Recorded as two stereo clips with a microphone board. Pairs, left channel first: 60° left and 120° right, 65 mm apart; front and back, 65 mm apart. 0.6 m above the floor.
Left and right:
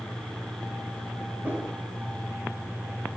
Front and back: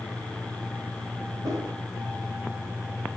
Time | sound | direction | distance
1.4 | a whoosh | 175° right | 2.5 m